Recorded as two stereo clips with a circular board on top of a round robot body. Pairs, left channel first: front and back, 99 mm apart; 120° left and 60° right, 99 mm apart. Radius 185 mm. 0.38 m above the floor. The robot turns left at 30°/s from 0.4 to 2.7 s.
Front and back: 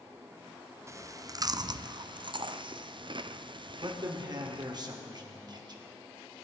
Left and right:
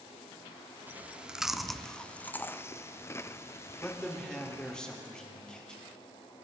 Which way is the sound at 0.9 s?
125° right.